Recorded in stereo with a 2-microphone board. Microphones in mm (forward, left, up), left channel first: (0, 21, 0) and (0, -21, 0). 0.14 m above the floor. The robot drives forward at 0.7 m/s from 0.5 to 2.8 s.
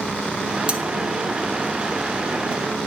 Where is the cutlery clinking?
25° right (ahead or behind), 0.9 m; by 0.8 s 30° right (ahead or behind), 0.9 m.